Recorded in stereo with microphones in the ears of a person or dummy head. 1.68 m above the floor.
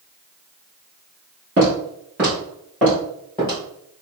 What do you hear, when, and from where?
1.6 s footsteps: 15° right (ahead or behind), 2.0 m; by 3.6 s 10° left (ahead or behind), 2.5 m